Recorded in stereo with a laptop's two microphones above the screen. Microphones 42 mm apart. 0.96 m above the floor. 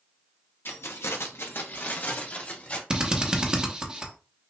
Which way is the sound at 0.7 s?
60° left (ahead or behind).